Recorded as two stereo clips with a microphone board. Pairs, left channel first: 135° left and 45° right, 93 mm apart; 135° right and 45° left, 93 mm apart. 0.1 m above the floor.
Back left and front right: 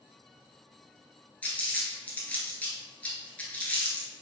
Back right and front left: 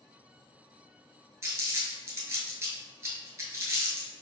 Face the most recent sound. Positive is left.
turn(degrees=75)